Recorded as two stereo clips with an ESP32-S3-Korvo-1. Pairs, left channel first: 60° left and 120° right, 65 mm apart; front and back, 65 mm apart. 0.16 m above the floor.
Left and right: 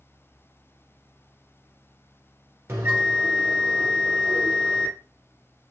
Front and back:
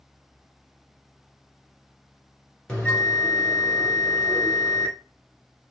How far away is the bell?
About 2.0 m.